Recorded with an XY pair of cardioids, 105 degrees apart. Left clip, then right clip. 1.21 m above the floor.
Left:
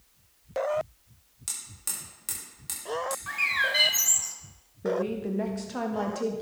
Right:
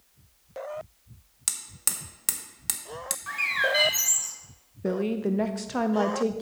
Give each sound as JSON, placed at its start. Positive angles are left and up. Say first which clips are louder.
{"t": 1.5, "sound": "hammering", "louder": "right 5 dB", "azimuth_deg": -60, "distance_m": 1.1}
{"t": 3.3, "sound": "a bird", "louder": "right 1 dB", "azimuth_deg": 5, "distance_m": 1.0}
{"t": 4.8, "sound": "a woman speaking", "louder": "right 1 dB", "azimuth_deg": -35, "distance_m": 0.5}